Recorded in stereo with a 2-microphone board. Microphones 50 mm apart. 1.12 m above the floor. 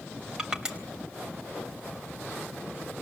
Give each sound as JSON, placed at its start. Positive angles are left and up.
{"t": 0.4, "sound": "crushing", "side_deg": -15, "distance_m": 3.5}